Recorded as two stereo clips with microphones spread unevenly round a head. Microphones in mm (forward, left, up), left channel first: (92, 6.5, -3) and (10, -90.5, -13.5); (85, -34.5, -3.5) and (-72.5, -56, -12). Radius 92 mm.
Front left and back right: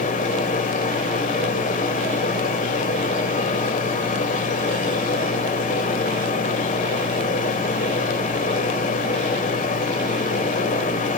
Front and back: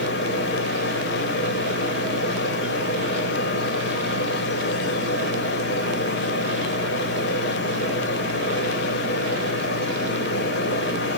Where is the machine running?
40° left, 3.5 m.